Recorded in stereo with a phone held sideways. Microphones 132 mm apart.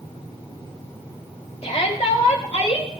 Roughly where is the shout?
Left.